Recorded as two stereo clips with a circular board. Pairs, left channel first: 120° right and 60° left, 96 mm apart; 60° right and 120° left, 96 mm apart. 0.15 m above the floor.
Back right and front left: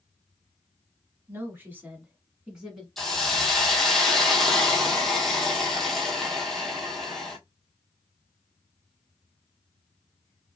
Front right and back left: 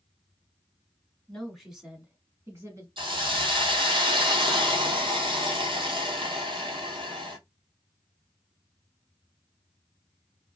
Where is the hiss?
155° left, 1.0 m.